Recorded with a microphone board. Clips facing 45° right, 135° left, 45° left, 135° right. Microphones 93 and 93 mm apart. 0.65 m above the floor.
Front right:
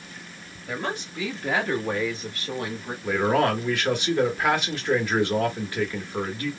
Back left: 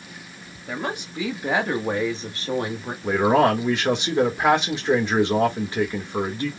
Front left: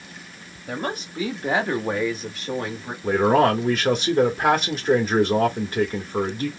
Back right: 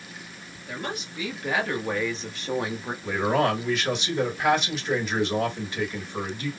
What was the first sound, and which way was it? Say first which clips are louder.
A woman speaking: back left 1 dB, front left 5 dB; 60° left.